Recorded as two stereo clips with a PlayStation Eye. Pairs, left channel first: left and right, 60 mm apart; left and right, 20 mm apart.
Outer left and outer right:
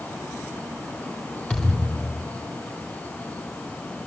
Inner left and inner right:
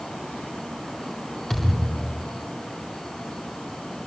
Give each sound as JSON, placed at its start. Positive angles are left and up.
{"t": 1.5, "sound": "a thud", "side_deg": 10, "distance_m": 8.5}